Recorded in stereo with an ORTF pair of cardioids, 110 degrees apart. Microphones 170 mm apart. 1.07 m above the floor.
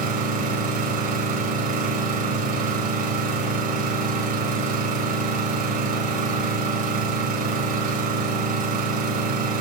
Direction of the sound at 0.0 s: 55° right.